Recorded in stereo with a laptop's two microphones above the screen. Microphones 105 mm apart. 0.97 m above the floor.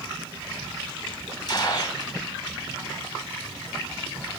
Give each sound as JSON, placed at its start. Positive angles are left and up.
{"t": 1.5, "sound": "a gunshot", "side_deg": 45, "distance_m": 1.6}